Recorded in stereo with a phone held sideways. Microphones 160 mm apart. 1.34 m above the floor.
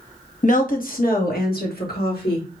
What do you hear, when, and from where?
0.4 s a woman speaking: 50° left (ahead or behind), 0.9 m; by 2.6 s 80° left, 2.0 m